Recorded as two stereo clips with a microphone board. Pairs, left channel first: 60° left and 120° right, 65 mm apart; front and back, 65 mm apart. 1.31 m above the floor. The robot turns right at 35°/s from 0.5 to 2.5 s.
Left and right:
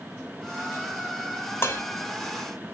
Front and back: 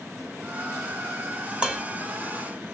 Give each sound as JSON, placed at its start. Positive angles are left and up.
{"t": 1.6, "sound": "dishes clattering", "azimuth_deg": 110, "distance_m": 0.6}